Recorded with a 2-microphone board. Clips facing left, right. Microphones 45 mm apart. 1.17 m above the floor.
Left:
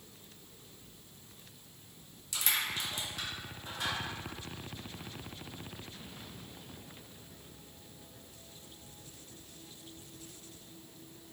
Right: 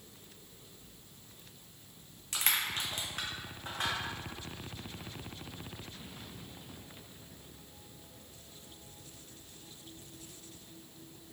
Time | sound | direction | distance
2.3 | crushing | 45° right (ahead or behind) | 0.8 m